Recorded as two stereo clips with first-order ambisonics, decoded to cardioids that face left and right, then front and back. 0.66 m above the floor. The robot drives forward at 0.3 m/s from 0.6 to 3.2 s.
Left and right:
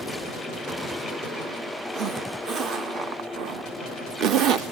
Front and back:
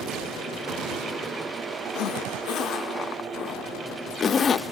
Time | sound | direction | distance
1.9 | a zipper | 30° right | 0.7 m